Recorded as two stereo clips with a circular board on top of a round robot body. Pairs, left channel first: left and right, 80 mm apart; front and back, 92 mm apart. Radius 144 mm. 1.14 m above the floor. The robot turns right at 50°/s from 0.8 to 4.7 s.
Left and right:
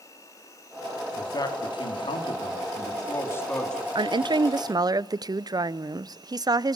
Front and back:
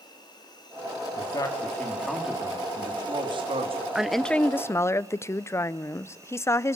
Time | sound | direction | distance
0.0 | an insect | 40° left | 5 m
1.2 | a man speaking | 40° left | 3.5 m
4.0 | a woman speaking | 95° right | 0.7 m